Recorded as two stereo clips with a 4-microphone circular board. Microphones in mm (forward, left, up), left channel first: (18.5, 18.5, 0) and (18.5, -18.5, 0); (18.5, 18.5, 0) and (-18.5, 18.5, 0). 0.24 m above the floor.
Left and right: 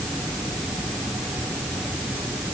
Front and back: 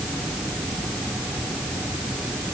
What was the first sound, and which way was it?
Only background noise.